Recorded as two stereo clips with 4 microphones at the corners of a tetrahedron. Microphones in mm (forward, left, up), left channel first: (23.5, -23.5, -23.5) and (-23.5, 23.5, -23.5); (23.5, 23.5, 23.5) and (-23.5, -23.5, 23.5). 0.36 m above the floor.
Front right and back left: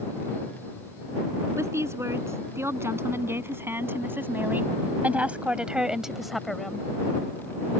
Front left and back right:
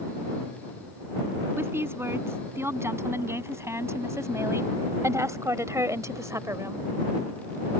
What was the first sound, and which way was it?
A woman speaking, 175° left.